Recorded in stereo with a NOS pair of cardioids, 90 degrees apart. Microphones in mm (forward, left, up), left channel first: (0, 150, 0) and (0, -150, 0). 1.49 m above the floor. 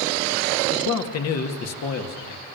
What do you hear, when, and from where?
0.7 s a man speaking: 60° left, 2.5 m